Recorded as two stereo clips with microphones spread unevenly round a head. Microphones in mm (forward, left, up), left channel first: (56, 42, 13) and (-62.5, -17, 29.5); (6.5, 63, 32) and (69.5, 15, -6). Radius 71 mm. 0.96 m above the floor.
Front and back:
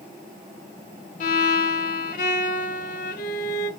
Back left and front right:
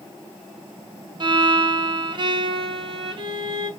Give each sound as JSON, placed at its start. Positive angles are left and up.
{"t": 1.2, "sound": "a violin", "azimuth_deg": 0, "distance_m": 0.8}